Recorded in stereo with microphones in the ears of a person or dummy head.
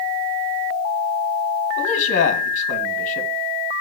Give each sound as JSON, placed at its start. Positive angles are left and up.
{"t": 1.8, "sound": "a man speaking", "side_deg": 40, "distance_m": 1.4}